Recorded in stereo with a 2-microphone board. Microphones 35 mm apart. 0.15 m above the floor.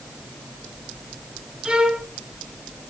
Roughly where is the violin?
Right.